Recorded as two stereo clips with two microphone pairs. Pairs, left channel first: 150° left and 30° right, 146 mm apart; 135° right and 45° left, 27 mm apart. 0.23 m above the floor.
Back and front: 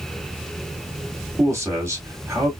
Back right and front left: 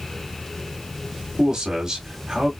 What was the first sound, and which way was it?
A man speaking, 10° left.